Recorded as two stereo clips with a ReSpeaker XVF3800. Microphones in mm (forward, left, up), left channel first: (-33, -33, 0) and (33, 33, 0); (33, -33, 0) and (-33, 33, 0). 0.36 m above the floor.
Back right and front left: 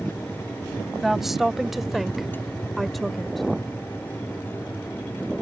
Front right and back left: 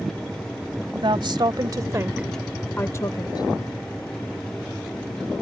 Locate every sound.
0.9 s a woman speaking: 135° left; by 3.5 s 45° right